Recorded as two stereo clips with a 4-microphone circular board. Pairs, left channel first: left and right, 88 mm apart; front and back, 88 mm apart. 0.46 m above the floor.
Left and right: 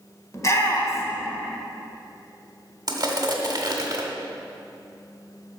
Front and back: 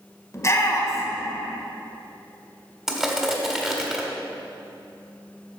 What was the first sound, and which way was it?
A shout, 45° left.